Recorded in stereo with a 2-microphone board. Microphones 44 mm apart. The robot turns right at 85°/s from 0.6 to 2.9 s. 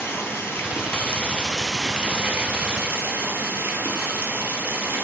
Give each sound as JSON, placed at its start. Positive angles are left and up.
{"t": 0.0, "sound": "running water", "azimuth_deg": 85, "distance_m": 1.6}